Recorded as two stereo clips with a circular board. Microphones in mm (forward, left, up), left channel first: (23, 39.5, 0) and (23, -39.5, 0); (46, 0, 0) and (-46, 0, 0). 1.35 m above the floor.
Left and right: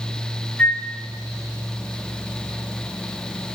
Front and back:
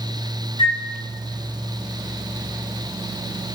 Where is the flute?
15° left, 4.5 m.